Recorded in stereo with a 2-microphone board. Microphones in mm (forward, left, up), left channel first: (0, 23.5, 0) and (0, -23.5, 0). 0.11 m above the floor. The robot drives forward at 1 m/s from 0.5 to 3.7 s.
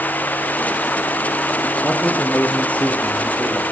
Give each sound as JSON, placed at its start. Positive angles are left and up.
{"t": 1.8, "sound": "a man speaking", "side_deg": 35, "distance_m": 6.0}